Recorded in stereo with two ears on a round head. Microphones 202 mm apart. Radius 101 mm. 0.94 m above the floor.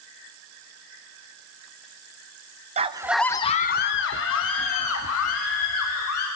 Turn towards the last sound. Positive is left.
turn(degrees=75)  # may be behind; listen again after turning